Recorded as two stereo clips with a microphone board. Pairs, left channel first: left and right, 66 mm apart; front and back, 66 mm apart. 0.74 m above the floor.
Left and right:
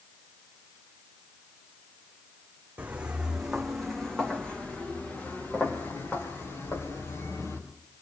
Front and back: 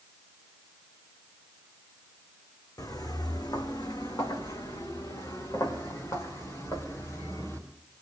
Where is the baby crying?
I don't hear a baby crying.